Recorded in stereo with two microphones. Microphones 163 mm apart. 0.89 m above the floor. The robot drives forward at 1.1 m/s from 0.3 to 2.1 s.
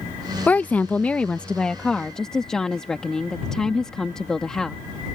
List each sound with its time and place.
0.5 s a woman speaking: 10° left (ahead or behind); by 4.8 s 5° left (ahead or behind)